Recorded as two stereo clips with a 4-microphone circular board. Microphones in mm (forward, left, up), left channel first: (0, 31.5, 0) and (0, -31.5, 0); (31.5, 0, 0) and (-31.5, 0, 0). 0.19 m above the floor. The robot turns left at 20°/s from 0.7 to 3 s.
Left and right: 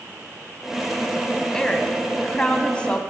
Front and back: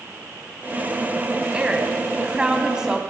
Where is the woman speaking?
150° left, 1.0 m; by 3.0 s 120° left, 1.0 m.